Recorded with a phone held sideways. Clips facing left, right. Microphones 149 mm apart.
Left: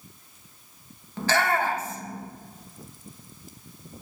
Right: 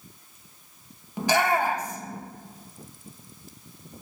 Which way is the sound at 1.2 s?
15° right (ahead or behind).